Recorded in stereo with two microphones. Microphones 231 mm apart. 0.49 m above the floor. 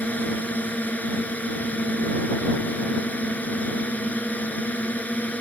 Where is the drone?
5° left (ahead or behind).